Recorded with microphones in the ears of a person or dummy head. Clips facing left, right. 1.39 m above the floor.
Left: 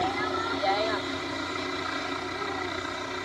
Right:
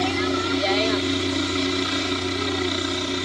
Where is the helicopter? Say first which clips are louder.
Right 6 dB; 40° right (ahead or behind); by 3.3 s 45° right (ahead or behind).